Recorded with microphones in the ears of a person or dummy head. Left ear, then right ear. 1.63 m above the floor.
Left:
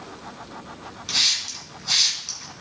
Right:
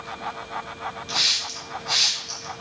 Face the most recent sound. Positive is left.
turn(degrees=30)  # may be behind; listen again after turning